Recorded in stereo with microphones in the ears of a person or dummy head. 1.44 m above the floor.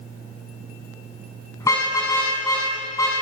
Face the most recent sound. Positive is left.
turn(degrees=20)  # may be behind; listen again after turning